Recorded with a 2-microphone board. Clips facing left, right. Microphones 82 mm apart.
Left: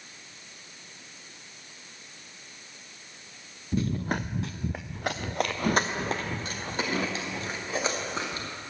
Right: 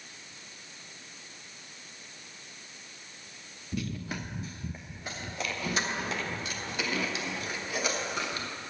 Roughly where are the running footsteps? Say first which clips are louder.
Left 7 dB; left.